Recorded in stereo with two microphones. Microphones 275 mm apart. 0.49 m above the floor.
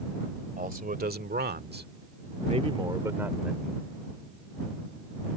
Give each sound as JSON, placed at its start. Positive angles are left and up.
{"t": 0.6, "sound": "a man speaking", "side_deg": -30}